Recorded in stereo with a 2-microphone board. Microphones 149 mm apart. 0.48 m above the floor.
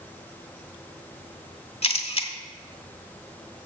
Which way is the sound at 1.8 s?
40° left (ahead or behind).